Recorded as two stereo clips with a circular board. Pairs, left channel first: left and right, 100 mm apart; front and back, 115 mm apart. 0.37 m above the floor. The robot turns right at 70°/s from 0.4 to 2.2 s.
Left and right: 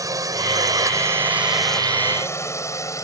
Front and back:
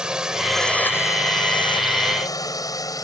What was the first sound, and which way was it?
A drone, 100° right.